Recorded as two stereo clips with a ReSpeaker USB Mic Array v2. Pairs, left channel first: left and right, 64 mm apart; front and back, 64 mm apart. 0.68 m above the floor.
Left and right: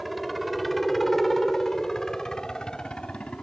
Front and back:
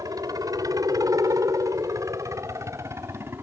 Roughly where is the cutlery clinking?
I don't hear cutlery clinking.